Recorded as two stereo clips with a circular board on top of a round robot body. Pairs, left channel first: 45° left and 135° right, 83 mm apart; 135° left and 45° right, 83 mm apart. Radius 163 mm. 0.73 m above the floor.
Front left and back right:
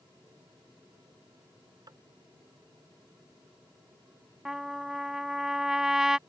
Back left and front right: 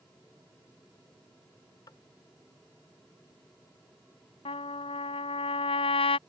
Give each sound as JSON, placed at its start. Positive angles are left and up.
{"t": 1.9, "sound": "tapping", "azimuth_deg": 180}
{"t": 4.5, "sound": "a trumpet", "azimuth_deg": 140}